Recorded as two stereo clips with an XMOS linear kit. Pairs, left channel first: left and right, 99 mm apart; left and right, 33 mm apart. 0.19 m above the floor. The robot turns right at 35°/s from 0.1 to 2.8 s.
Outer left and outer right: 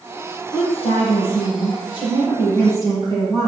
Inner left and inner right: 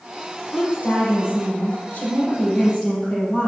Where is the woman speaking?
65° left, 5.5 m; by 3.5 s 145° left, 5.5 m.